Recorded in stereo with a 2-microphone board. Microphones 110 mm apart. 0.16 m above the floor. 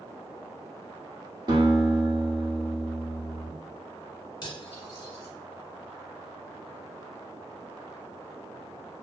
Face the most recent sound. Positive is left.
turn(degrees=35)  # may be behind; listen again after turning